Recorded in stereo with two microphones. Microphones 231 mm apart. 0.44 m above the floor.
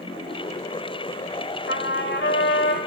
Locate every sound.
1.7 s a trumpet: 55° left (ahead or behind), 2.0 m